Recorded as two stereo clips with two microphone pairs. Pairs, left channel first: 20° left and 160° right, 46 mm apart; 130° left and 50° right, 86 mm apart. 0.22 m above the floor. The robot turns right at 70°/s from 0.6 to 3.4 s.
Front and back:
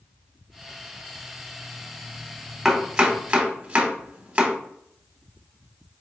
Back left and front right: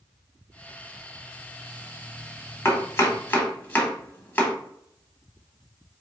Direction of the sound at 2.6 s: 125° left.